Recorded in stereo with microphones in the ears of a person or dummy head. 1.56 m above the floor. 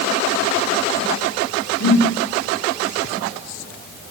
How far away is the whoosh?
About 3 m.